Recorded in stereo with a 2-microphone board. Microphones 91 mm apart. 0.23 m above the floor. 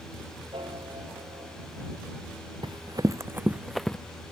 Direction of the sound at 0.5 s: 75° right (ahead or behind).